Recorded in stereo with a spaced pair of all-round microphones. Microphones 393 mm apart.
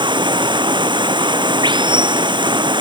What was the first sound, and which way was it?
Running water, 10° right (ahead or behind).